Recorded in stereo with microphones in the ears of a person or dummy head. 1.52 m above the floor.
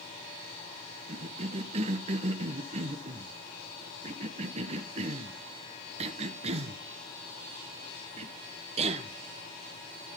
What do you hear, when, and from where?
1.1 s a cough: 30° right (ahead or behind), 1.3 m